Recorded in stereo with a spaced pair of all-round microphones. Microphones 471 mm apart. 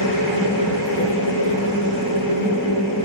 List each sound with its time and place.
0.0 s a machine running: 75° left (ahead or behind), 4.5 m